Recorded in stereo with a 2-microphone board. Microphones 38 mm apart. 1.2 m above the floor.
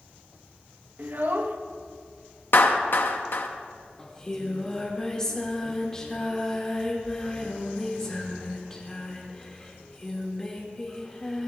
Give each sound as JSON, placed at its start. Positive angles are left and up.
{"t": 1.0, "sound": "a child speaking", "side_deg": -50, "distance_m": 0.9}
{"t": 2.5, "sound": "a clap", "side_deg": 75, "distance_m": 0.9}
{"t": 4.0, "sound": "singing", "side_deg": 15, "distance_m": 1.9}